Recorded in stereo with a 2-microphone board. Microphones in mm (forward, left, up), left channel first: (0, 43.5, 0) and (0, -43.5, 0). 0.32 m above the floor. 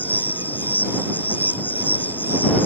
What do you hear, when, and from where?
0.0 s an insect: 20° left (ahead or behind)